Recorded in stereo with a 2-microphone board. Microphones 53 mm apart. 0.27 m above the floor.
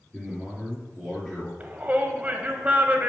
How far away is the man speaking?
About 4 m.